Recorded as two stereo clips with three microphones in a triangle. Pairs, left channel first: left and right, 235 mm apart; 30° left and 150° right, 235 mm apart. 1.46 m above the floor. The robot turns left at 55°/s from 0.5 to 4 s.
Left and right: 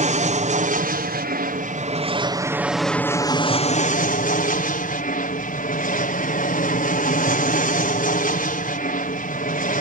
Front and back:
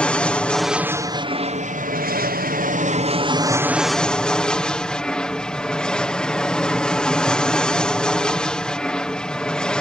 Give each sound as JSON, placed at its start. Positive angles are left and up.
{"t": 0.0, "sound": "an aircraft", "azimuth_deg": -55}